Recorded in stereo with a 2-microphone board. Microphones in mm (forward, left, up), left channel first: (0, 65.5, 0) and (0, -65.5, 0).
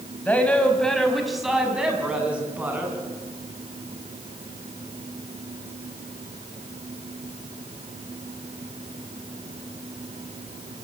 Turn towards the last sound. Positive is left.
turn(degrees=-15)  # may be behind; listen again after turning